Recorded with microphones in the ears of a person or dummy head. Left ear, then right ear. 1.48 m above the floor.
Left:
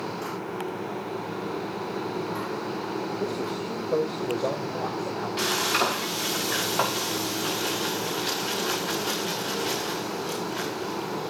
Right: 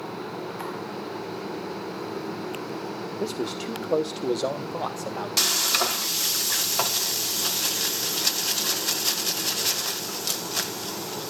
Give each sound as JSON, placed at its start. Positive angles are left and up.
{"t": 3.2, "sound": "a man speaking", "side_deg": -40, "distance_m": 0.9}
{"t": 5.4, "sound": "frying", "side_deg": -75, "distance_m": 1.7}